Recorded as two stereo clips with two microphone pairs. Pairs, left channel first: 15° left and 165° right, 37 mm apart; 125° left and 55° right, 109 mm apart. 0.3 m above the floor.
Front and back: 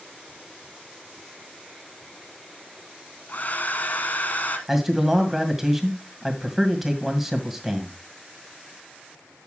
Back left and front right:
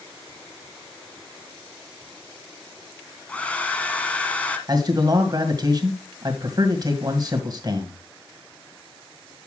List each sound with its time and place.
3.3 s a hair dryer: 50° left, 1.4 m
4.7 s a man speaking: 85° right, 1.9 m